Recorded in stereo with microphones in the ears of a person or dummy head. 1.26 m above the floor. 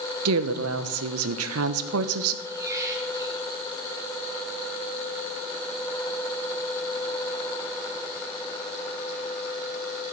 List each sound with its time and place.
0.2 s a woman speaking: 70° right (ahead or behind), 0.8 m
2.5 s a squeak: 15° right (ahead or behind), 2.5 m